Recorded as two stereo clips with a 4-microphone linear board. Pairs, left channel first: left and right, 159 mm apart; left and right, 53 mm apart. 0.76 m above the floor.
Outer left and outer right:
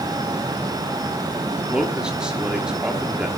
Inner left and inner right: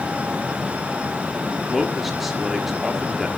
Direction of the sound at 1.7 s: 5° right (ahead or behind).